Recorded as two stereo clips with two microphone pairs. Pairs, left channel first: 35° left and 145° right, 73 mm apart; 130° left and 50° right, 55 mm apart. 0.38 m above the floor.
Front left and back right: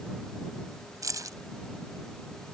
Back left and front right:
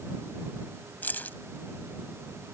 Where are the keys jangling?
175° right.